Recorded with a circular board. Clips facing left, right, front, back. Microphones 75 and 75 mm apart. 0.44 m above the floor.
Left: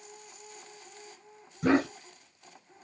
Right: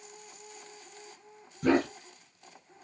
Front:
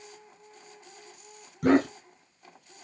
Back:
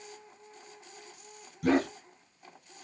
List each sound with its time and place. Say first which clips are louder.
1.6 s a dog barking: even, front 4 dB; 20° left, 1.5 m